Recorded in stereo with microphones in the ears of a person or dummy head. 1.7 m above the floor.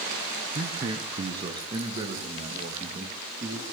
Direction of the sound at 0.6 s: 25° right (ahead or behind).